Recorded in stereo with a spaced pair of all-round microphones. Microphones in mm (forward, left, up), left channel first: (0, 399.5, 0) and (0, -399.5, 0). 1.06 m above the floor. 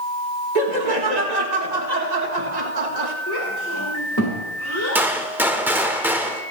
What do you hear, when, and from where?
0.6 s laughter: 55° right (ahead or behind), 1.9 m
3.3 s a child speaking: 20° left (ahead or behind), 3 m
5.0 s a gunshot: 5° right (ahead or behind), 1.1 m